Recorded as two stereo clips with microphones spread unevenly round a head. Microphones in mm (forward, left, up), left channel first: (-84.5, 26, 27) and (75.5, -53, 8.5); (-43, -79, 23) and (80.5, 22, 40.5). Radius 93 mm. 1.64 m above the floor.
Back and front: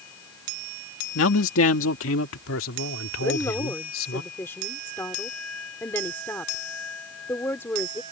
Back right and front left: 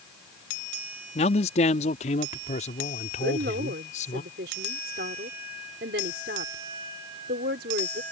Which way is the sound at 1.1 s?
160° left.